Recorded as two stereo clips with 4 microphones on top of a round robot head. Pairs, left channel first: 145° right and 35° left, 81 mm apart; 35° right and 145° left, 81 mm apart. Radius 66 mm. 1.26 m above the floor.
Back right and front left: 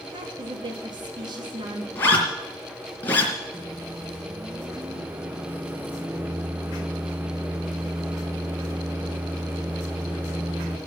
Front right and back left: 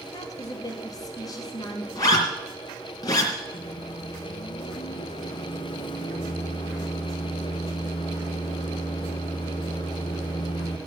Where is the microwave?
35° right, 1.1 m.